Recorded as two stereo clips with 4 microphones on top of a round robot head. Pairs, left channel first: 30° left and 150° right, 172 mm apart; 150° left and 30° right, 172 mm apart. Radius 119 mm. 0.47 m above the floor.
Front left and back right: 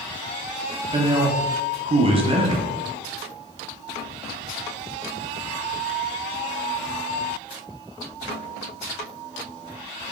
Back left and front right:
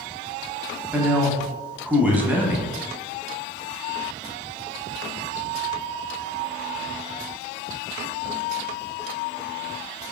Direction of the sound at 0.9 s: 110° right.